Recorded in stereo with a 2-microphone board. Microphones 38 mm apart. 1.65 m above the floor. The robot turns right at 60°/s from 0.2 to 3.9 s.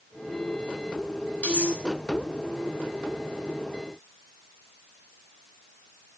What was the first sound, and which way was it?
Cutlery clinking, 45° left (ahead or behind).